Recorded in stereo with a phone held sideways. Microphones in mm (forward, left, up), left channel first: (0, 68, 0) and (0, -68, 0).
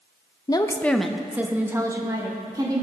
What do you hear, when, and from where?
0.5 s a woman speaking: 30° left (ahead or behind), 0.5 m; by 2.8 s 30° right (ahead or behind), 1.7 m